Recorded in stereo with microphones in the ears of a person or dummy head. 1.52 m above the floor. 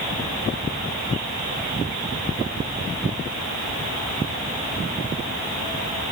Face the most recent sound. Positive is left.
No sound to turn to.